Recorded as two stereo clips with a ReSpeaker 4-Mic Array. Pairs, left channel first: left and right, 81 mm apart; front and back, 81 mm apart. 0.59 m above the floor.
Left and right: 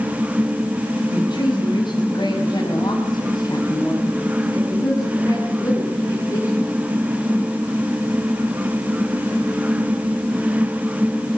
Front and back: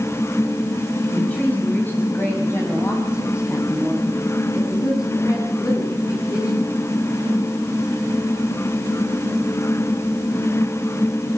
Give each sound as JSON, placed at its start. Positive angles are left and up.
{"t": 1.1, "sound": "a woman speaking", "azimuth_deg": 75, "distance_m": 4.0}